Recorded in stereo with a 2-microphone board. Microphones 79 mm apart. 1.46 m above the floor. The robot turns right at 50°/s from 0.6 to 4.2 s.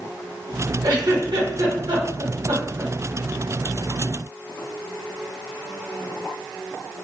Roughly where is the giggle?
Right.